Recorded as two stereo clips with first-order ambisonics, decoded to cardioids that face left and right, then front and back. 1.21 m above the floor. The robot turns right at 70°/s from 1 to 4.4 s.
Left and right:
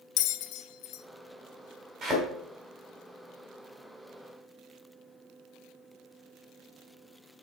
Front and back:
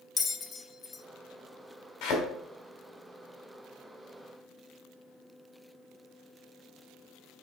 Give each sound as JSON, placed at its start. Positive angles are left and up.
{"t": 0.2, "sound": "a bell", "azimuth_deg": 65, "distance_m": 0.5}
{"t": 2.0, "sound": "a thud", "azimuth_deg": -20, "distance_m": 3.0}